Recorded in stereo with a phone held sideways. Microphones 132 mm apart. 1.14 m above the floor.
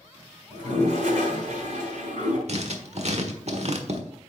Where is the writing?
55° right (ahead or behind), 1.1 m.